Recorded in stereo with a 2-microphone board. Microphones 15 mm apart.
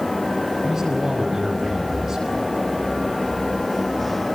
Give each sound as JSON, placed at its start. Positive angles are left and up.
{"t": 0.6, "sound": "a man speaking", "side_deg": -50, "distance_m": 5.5}